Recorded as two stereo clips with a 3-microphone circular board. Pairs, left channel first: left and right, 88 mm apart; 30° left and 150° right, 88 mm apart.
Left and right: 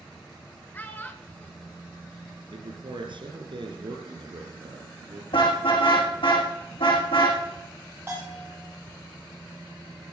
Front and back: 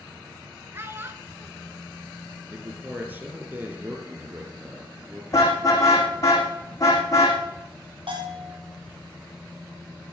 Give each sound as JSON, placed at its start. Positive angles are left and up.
{"t": 0.7, "sound": "a child speaking", "azimuth_deg": 155, "distance_m": 1.3}
{"t": 2.5, "sound": "a man speaking", "azimuth_deg": -85, "distance_m": 4.0}
{"t": 5.3, "sound": "a car horn", "azimuth_deg": 85, "distance_m": 4.5}
{"t": 8.1, "sound": "a bell", "azimuth_deg": -155, "distance_m": 6.0}